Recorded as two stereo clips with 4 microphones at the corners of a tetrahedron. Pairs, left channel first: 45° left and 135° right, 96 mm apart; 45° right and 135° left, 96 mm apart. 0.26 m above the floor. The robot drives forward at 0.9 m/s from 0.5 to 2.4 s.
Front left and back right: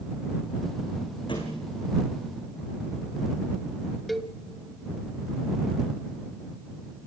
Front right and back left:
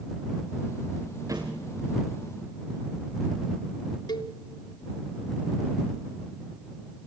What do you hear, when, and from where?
1.3 s a thud: 80° left, 4.5 m; by 1.8 s 85° left, 4.5 m
4.1 s a cowbell: 45° right, 1.1 m